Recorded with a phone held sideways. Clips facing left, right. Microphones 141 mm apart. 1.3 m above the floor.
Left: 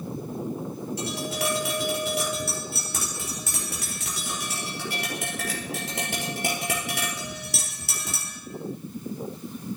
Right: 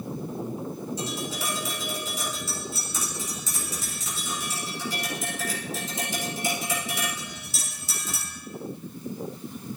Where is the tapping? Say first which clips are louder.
Left 3 dB; 70° left (ahead or behind), 4 m.